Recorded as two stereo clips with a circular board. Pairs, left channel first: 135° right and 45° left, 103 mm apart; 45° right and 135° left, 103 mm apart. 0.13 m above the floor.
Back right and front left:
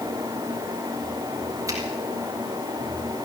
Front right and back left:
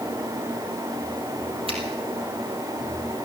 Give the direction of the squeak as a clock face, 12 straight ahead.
No squeak in this recording.